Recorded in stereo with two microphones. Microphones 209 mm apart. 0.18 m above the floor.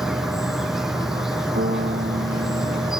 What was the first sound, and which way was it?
An insect, centre (ahead or behind).